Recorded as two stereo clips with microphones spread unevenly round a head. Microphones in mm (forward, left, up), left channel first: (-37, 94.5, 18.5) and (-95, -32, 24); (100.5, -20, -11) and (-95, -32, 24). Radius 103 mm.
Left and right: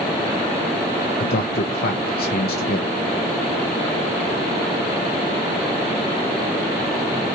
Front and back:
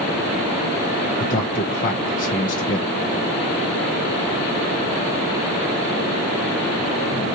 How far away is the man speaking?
About 0.9 m.